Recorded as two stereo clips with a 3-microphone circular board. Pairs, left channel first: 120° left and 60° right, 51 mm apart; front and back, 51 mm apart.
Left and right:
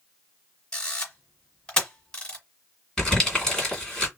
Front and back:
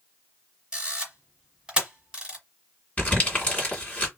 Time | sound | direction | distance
0.7 | a camera shutter | 155° left | 1.2 m
3.0 | crumpling | 45° left | 2 m